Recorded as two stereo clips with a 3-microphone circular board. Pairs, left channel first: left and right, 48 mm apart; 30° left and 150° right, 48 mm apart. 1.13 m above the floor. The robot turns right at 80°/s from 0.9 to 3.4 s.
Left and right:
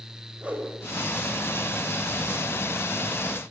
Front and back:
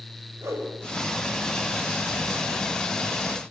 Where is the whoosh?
155° right, 6.5 m.